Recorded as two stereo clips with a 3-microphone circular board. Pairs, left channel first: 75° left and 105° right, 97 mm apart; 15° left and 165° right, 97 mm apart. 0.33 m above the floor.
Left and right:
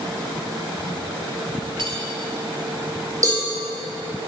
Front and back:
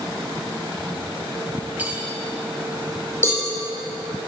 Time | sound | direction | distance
1.8 | cutlery clinking | 95° right | 1.0 m
3.2 | a cowbell | 50° right | 2 m